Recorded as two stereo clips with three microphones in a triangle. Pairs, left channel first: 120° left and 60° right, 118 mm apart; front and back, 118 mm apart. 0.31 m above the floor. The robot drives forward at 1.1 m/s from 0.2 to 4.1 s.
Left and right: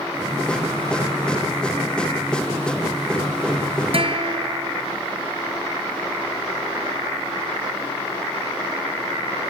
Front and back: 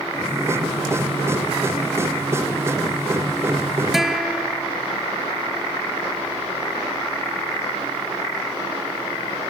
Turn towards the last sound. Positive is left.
turn(degrees=-95)